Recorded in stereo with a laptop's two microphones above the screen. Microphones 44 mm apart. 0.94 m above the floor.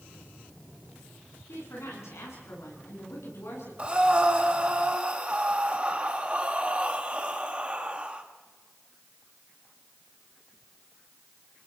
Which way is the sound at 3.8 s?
25° right (ahead or behind).